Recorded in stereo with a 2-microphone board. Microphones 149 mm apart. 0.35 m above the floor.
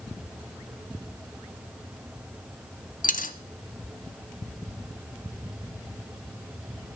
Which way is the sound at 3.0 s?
65° left (ahead or behind).